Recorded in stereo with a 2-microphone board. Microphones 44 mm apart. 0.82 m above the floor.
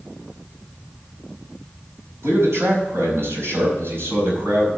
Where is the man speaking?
80° right, 4.5 m; by 4.7 s 60° right (ahead or behind), 5 m.